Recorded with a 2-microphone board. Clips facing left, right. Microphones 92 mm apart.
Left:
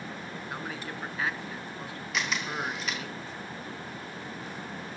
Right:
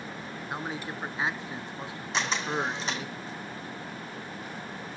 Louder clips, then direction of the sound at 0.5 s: Right 4 dB; 20° right (ahead or behind).